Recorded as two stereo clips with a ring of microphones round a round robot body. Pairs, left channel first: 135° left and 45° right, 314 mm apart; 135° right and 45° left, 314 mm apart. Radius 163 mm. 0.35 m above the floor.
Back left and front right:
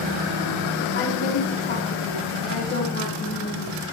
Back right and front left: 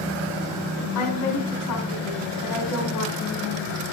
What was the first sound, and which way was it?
A woman speaking, 165° right.